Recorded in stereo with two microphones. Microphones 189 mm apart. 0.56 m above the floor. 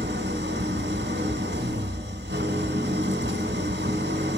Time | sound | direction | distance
0.0 | an engine running | 75° right (ahead or behind) | 1.4 m